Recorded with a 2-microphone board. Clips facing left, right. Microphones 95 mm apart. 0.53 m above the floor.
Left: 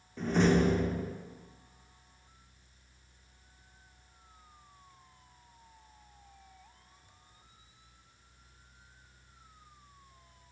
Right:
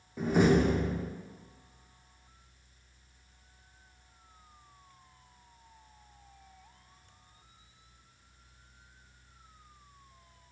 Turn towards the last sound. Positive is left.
turn(degrees=-10)  # may be behind; listen again after turning